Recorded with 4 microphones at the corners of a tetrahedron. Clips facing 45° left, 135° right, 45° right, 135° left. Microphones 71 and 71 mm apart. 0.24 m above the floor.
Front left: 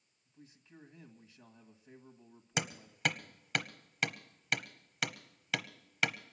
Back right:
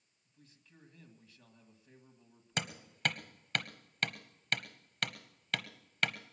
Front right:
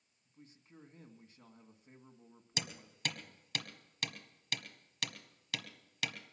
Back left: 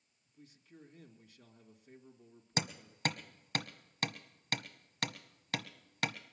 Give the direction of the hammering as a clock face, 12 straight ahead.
8 o'clock.